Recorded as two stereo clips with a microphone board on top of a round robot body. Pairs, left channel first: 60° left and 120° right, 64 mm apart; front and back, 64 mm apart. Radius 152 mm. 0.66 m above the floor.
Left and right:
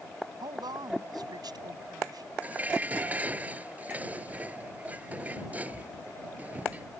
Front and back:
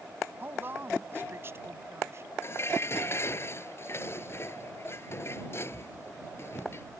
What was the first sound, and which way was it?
A woman speaking, 120° right.